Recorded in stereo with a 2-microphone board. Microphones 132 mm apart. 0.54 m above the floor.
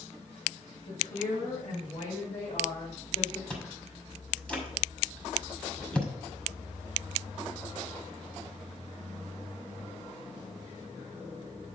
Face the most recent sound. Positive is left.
turn(degrees=5)  # may be behind; listen again after turning